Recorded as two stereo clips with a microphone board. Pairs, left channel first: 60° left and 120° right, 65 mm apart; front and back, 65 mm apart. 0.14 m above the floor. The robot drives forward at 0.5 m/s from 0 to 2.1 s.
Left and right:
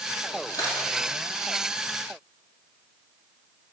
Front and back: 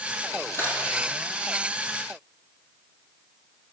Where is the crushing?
50° left, 3 m.